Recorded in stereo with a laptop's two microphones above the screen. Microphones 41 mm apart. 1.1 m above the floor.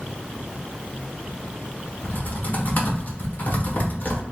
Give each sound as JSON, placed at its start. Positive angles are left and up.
{"t": 2.0, "sound": "typing on a keyboard", "side_deg": 50, "distance_m": 1.1}